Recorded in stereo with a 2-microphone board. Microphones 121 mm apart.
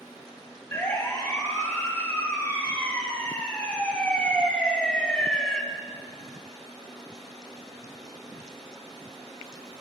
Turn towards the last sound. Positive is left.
turn(degrees=5)  # may be behind; listen again after turning